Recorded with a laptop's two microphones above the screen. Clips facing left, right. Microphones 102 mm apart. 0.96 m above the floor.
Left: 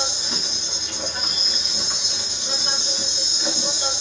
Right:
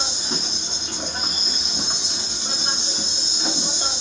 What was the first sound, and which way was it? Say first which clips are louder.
An insect: even; 35° right (ahead or behind).